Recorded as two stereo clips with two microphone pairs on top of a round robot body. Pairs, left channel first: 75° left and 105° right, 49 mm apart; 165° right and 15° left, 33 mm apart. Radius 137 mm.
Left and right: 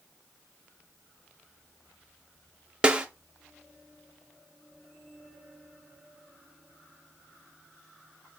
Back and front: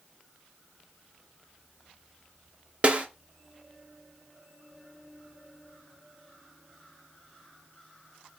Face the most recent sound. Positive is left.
turn(degrees=-40)